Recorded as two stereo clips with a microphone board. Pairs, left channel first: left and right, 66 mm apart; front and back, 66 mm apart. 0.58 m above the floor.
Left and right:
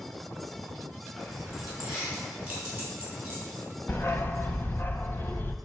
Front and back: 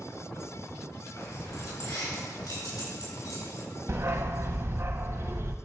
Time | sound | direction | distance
1.2 | keys jangling | 5° right | 4.5 m
3.9 | a dog barking | 140° left | 0.8 m